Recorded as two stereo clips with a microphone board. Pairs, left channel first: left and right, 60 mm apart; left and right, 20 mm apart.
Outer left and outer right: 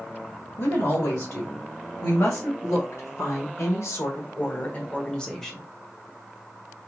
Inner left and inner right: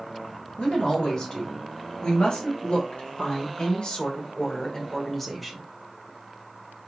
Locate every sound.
0.6 s a woman speaking: 60° left (ahead or behind), 3 m; by 5.6 s 5° left (ahead or behind), 1.4 m